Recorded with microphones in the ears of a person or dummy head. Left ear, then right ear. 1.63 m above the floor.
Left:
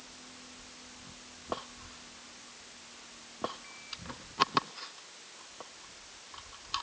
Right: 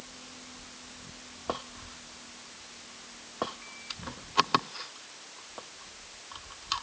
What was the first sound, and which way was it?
Only background noise.